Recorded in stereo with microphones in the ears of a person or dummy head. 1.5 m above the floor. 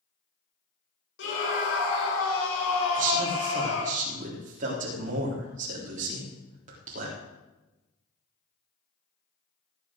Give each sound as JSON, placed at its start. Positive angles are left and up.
{"t": 1.2, "sound": "a scream", "side_deg": 70, "distance_m": 5.0}
{"t": 2.9, "sound": "a man speaking", "side_deg": -40, "distance_m": 3.5}